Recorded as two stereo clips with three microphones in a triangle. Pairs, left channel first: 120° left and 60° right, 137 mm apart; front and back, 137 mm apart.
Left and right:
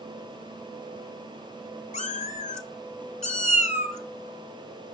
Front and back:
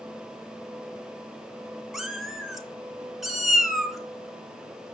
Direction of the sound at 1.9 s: 90° left.